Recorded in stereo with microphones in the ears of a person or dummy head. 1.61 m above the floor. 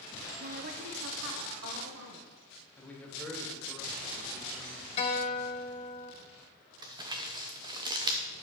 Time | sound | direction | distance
0.4 | a woman speaking | 40° right (ahead or behind) | 0.9 m
2.8 | a man speaking | 5° left (ahead or behind) | 2 m
5.0 | a guitar | 40° left (ahead or behind) | 1.5 m
6.8 | crumpling | 20° right (ahead or behind) | 1.0 m